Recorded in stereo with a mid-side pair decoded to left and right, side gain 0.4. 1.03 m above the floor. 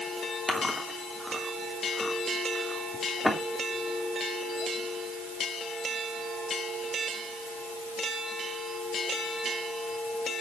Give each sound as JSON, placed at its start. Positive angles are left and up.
{"t": 0.5, "sound": "chewing", "azimuth_deg": 10, "distance_m": 3.0}